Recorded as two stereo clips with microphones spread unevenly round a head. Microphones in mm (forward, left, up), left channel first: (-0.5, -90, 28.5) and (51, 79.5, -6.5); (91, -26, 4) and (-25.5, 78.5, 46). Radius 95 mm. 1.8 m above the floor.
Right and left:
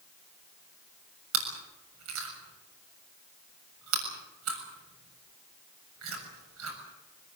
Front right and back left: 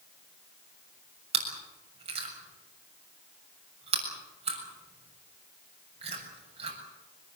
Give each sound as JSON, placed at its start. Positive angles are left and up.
{"t": 1.3, "sound": "chewing", "azimuth_deg": 90, "distance_m": 7.0}